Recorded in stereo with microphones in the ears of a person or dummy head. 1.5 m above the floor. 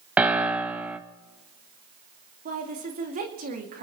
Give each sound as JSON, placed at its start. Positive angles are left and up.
{"t": 0.2, "sound": "a piano", "side_deg": 0, "distance_m": 0.8}
{"t": 2.5, "sound": "a woman speaking", "side_deg": -45, "distance_m": 2.0}